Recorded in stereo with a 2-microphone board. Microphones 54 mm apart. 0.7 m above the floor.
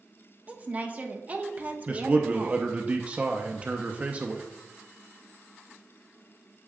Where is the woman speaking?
30° right (ahead or behind), 1.0 m.